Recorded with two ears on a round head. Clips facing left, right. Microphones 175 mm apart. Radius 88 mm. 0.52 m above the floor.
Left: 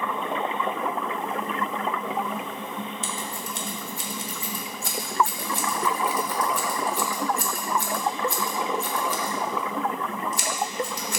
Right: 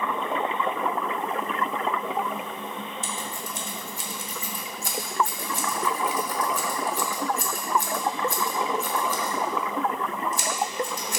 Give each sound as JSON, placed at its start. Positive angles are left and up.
{"t": 3.0, "sound": "scissors", "side_deg": 50, "distance_m": 1.1}